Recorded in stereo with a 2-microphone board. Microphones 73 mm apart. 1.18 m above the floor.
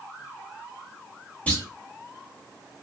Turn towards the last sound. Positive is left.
turn(degrees=15)  # may be behind; listen again after turning